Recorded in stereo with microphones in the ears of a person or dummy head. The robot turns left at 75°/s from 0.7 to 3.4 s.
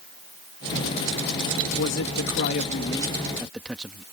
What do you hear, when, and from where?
1.8 s a man speaking: 120° left; by 4.0 s 5° right